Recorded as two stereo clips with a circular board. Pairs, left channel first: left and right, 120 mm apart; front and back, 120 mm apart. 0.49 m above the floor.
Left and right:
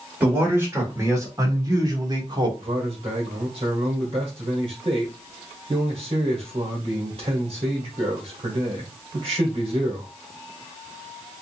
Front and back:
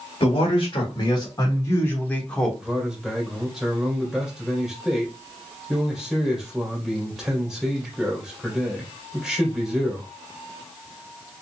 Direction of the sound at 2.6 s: 90° right.